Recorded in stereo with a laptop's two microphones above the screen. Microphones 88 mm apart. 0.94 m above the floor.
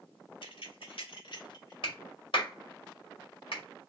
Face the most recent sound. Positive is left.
turn(degrees=70)  # may be behind; listen again after turning